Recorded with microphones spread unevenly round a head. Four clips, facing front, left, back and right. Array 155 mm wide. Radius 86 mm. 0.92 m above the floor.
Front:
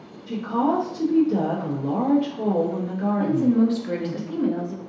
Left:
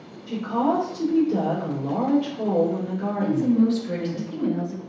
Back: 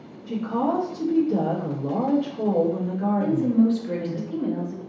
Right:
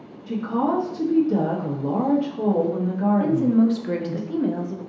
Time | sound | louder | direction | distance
0.3 | a woman speaking | even, front 2 dB | 75° right | 1.2 m
3.2 | a woman speaking | left 1 dB, front 1 dB | 35° right | 0.7 m